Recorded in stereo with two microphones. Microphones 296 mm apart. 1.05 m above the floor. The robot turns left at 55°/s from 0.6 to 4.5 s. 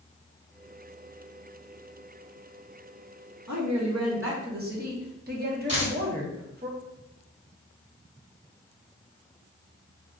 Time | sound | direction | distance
3.5 | a woman speaking | 90° right | 0.8 m
5.7 | a dropped coin | 35° right (ahead or behind) | 1.6 m